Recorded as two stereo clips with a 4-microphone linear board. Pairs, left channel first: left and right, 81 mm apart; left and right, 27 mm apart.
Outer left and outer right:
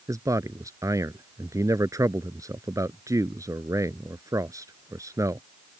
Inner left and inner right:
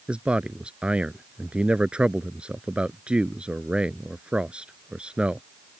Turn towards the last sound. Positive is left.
turn(degrees=-45)  # may be behind; listen again after turning